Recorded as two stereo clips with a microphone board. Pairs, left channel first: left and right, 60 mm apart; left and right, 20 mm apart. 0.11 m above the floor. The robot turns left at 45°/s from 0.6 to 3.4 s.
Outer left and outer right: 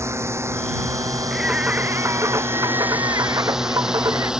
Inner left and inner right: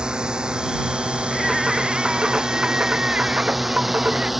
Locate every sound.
0.0 s a drone: 50° right (ahead or behind); by 4.4 s 10° right (ahead or behind)
1.3 s singing: 10° right; by 4.3 s 105° right